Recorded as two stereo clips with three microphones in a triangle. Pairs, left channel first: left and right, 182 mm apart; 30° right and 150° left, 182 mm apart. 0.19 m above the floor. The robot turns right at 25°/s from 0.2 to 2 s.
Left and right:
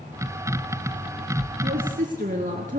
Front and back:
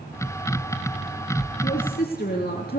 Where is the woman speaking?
65° right, 3.5 m; by 2.8 s 55° right, 3.5 m.